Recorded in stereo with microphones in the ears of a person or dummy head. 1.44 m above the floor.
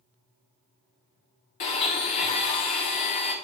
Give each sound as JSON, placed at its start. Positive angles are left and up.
{"t": 1.6, "sound": "a blender", "side_deg": 45, "distance_m": 1.3}